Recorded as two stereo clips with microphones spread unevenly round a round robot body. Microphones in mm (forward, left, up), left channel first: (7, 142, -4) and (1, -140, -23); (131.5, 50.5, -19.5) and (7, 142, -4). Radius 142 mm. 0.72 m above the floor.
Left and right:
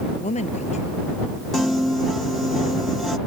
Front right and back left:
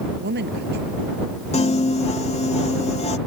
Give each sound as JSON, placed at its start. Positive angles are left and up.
{"t": 0.2, "sound": "a woman speaking", "azimuth_deg": 155}
{"t": 1.5, "sound": "a piano", "azimuth_deg": -5}